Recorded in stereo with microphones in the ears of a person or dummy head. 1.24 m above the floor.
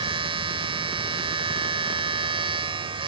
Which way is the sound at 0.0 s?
30° right (ahead or behind).